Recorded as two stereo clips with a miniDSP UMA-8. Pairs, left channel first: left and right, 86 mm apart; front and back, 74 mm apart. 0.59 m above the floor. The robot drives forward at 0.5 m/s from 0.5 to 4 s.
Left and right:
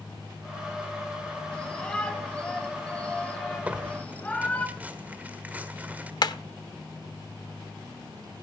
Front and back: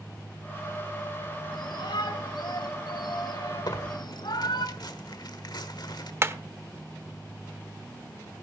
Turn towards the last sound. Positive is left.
turn(degrees=125)